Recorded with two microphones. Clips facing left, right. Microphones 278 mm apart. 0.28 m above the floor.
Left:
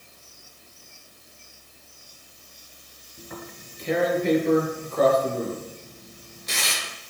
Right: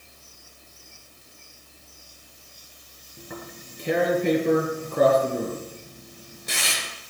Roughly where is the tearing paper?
Right.